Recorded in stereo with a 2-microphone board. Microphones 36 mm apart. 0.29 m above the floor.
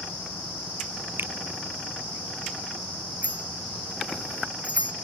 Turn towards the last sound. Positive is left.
turn(degrees=-40)  # may be behind; listen again after turning